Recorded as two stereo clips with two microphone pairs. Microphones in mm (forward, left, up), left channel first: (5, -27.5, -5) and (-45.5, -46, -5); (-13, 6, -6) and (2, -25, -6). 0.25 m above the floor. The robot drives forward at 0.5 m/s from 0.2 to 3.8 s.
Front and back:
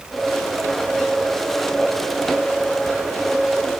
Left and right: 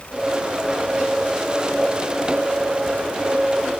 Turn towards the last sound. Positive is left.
No sound to turn to.